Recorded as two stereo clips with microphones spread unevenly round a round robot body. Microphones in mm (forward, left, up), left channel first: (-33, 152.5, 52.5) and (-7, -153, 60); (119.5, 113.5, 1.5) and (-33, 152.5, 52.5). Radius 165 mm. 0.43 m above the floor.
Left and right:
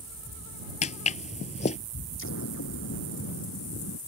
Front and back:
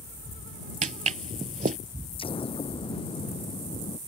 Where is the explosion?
40° left.